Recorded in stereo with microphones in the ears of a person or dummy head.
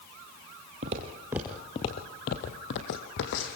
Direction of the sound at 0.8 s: 30° right (ahead or behind).